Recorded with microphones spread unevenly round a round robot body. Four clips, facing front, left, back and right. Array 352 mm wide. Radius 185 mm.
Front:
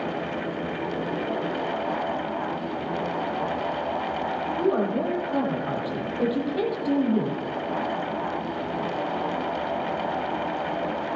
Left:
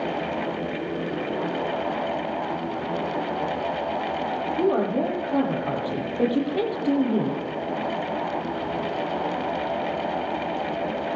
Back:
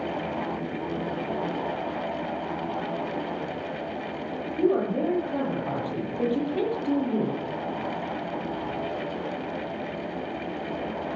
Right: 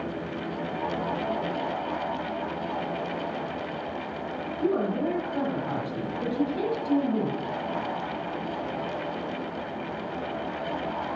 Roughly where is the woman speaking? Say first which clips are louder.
Left 3 dB, back 1 dB; left.